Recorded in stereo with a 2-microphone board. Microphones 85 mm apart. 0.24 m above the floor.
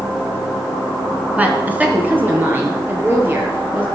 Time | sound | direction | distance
1.4 | a woman speaking | 15° right (ahead or behind) | 2.5 m